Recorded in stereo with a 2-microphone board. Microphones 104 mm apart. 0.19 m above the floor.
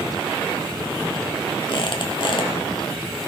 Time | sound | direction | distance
1.7 | a squeak | 55° left (ahead or behind) | 2.5 m